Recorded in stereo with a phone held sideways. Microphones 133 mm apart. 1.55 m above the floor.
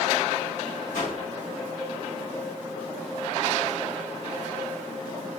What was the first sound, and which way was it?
A whoosh, 80° left.